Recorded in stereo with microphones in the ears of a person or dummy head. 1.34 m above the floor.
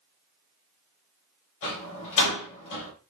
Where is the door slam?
75° left (ahead or behind), 3.5 m.